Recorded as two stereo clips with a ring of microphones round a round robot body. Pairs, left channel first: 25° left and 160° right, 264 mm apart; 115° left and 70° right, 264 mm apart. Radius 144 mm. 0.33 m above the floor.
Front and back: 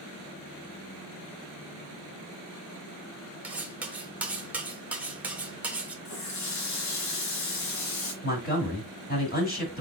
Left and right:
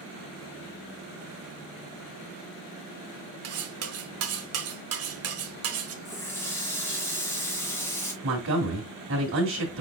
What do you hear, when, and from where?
3.4 s cutlery clinking: 75° right, 1.2 m
6.0 s a running tap: 30° left, 2 m
8.2 s a man speaking: 30° right, 2 m